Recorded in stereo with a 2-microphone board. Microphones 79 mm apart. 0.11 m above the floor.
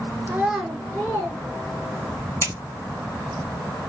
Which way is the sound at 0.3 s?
25° right (ahead or behind).